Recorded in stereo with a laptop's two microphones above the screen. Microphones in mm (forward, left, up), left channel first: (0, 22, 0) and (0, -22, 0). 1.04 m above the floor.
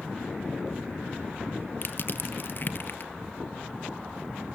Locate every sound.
1.8 s crushing: 50° left (ahead or behind), 1.3 m